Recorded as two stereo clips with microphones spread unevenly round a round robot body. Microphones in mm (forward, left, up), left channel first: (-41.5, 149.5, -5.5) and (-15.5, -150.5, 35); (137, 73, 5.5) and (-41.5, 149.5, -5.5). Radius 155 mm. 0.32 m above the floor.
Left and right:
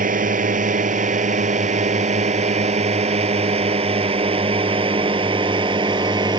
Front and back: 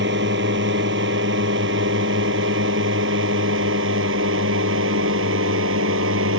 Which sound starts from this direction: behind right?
A drone, at 0.0 s.